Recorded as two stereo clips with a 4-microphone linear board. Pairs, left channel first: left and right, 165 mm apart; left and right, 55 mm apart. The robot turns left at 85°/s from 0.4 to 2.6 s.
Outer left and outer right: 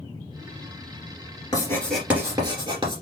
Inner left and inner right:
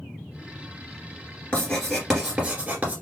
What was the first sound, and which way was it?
Writing, 40° left.